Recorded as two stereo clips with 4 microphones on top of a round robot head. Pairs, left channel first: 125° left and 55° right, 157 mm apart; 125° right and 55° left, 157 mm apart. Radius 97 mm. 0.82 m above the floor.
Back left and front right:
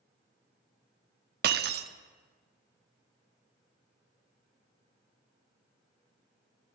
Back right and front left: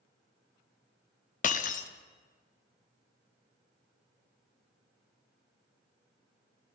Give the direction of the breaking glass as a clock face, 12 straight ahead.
3 o'clock.